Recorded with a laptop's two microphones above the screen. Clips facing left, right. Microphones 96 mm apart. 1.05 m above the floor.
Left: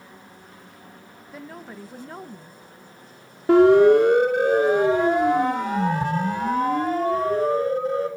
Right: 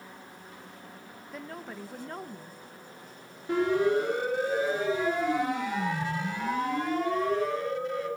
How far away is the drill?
I don't hear a drill.